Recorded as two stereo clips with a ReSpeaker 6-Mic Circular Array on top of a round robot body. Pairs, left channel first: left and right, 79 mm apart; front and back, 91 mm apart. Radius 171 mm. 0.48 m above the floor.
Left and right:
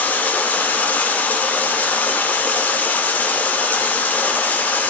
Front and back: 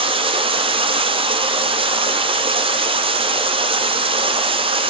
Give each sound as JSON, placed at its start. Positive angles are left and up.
{"t": 0.0, "sound": "running water", "azimuth_deg": 160, "distance_m": 0.8}